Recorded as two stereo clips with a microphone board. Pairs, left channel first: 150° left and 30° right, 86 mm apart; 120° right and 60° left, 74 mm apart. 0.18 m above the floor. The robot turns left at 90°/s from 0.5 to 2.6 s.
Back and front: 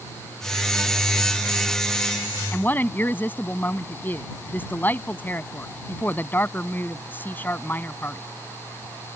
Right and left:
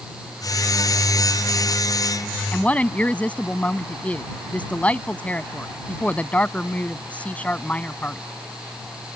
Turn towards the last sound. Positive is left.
turn(degrees=-170)